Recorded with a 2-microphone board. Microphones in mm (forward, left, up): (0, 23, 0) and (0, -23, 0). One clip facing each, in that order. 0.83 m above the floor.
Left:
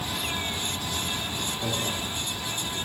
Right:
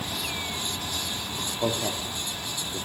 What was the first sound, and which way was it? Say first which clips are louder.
A man speaking: right 5 dB; 50° right (ahead or behind).